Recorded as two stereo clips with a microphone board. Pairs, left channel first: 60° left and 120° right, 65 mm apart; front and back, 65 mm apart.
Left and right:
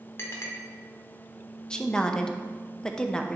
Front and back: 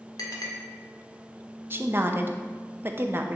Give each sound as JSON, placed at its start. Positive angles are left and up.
{"t": 0.2, "sound": "a clink", "azimuth_deg": 10, "distance_m": 1.5}
{"t": 1.7, "sound": "a woman speaking", "azimuth_deg": 135, "distance_m": 0.6}